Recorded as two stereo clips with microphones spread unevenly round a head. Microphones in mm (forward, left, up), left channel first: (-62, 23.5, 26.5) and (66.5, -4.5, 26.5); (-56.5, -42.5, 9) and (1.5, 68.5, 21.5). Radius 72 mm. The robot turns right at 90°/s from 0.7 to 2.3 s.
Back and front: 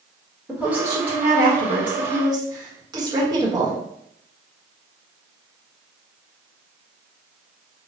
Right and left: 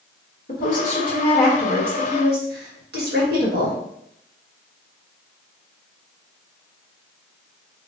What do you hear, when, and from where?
0.5 s a woman speaking: 95° right, 1.4 m; by 3.8 s 50° left, 1.4 m